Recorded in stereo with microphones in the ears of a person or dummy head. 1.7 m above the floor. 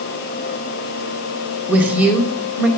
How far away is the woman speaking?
About 1.1 m.